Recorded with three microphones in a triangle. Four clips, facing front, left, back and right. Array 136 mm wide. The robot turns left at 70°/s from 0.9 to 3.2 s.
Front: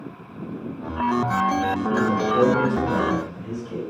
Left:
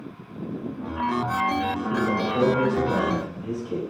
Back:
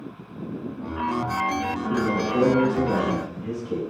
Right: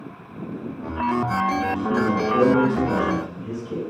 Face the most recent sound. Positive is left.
turn(degrees=-165)